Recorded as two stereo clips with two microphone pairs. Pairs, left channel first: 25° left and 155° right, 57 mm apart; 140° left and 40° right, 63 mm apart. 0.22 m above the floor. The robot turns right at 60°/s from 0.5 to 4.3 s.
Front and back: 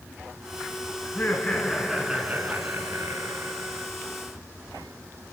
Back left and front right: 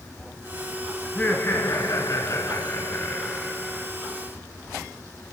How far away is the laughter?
About 2.5 m.